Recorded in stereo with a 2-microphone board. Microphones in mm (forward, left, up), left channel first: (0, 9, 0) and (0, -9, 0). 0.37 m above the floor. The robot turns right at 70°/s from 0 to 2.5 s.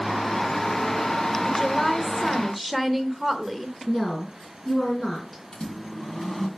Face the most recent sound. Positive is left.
turn(degrees=60)  # may be behind; listen again after turning